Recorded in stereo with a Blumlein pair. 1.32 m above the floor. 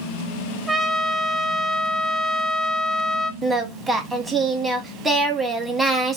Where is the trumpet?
5° right, 0.6 m.